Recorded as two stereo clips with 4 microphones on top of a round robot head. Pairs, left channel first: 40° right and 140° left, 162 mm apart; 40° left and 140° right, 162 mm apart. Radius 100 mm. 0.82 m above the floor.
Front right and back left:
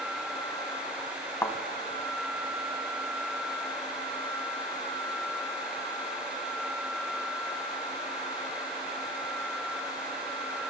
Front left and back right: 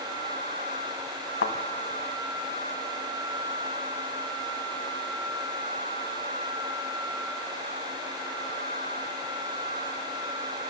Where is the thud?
35° left, 1.5 m.